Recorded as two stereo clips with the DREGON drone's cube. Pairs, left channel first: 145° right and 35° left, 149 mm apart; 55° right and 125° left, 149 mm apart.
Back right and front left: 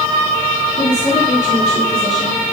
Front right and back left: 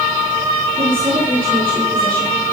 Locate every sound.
0.8 s a woman speaking: straight behind, 8.5 m